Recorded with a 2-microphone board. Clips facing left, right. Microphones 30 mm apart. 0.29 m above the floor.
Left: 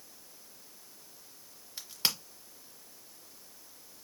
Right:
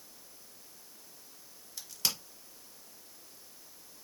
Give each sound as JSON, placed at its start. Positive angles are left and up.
{"t": 1.8, "sound": "a crack", "side_deg": 30, "distance_m": 0.9}